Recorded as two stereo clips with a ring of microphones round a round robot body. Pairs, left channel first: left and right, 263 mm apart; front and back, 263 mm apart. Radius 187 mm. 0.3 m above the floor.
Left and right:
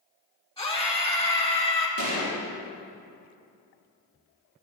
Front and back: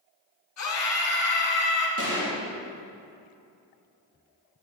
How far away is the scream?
About 3 m.